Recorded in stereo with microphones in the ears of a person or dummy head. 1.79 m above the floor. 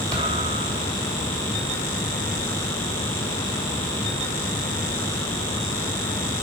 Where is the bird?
I don't hear a bird.